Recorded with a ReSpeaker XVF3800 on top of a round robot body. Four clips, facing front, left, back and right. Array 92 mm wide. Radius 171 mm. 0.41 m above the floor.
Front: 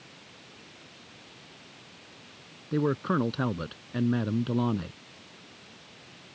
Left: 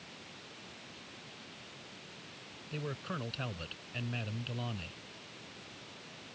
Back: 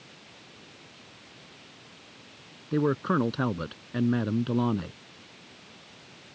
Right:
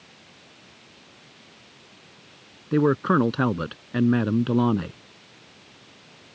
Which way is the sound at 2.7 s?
90° right.